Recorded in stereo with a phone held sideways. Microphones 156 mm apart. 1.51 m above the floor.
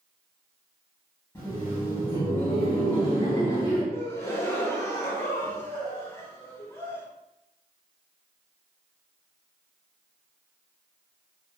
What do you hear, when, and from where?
1.4 s laughter: 15° left (ahead or behind), 1.6 m
3.9 s a gasp: 15° left (ahead or behind), 0.7 m